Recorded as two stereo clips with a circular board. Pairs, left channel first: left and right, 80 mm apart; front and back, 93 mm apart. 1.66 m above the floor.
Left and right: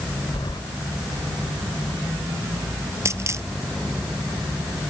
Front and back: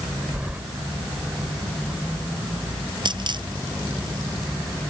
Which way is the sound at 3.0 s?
145° right.